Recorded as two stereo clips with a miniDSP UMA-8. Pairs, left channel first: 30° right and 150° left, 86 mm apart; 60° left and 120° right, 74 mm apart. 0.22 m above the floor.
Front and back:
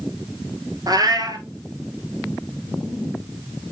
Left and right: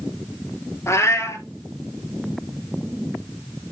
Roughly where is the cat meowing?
Left.